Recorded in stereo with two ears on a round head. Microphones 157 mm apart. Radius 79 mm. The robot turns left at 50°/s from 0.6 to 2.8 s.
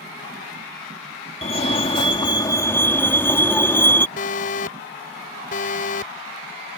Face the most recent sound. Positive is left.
turn(degrees=50)  # may be behind; listen again after turning